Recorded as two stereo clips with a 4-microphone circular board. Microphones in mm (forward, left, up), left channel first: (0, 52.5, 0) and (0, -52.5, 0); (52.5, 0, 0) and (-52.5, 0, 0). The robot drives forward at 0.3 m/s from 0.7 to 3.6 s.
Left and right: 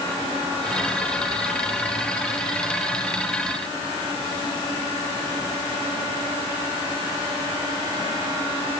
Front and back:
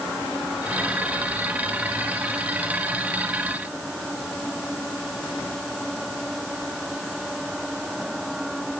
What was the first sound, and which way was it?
Only background noise.